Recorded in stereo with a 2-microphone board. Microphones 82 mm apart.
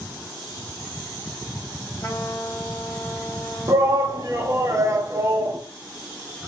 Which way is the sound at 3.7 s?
40° right (ahead or behind).